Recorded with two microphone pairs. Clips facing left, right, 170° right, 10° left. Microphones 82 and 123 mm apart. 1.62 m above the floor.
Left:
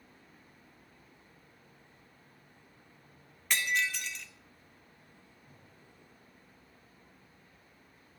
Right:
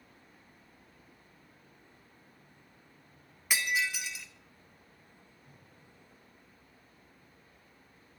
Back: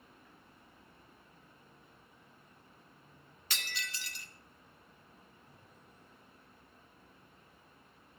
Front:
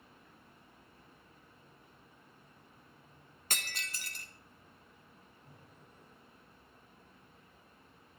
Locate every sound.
3.5 s breaking glass: 15° right, 1.1 m
5.4 s breathing: 10° right, 7.5 m